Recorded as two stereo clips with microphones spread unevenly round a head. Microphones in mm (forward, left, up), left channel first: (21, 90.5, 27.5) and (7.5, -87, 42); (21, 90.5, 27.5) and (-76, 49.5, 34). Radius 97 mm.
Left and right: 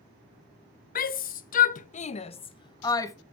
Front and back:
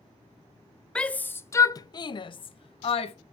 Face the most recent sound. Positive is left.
turn(degrees=15)